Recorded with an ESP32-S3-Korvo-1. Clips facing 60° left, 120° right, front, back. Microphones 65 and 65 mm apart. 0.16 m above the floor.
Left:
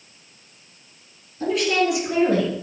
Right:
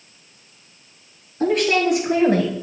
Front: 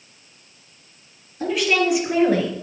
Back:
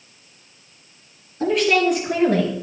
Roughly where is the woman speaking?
Right.